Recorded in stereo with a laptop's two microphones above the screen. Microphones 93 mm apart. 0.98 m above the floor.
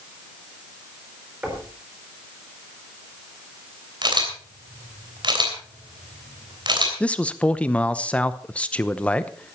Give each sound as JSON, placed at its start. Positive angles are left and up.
{"t": 1.4, "sound": "knocking", "side_deg": -15, "distance_m": 3.5}
{"t": 4.0, "sound": "a camera shutter", "side_deg": -55, "distance_m": 3.0}
{"t": 7.0, "sound": "a man speaking", "side_deg": 15, "distance_m": 0.8}